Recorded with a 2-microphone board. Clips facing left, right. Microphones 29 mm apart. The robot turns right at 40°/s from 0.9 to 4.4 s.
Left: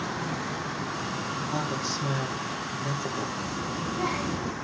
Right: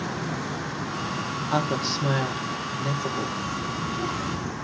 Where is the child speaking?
25° left, 2 m; by 4.5 s 65° left, 2 m.